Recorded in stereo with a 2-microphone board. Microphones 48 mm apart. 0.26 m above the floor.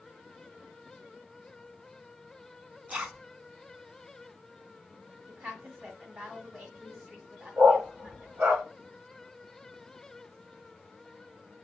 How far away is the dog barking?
About 1.7 m.